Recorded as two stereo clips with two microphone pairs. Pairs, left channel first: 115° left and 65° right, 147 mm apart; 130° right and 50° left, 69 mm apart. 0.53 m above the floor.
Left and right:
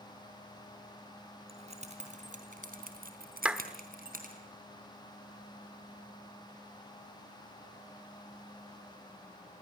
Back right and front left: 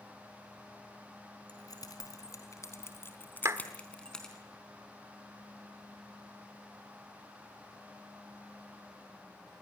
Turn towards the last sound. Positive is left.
turn(degrees=15)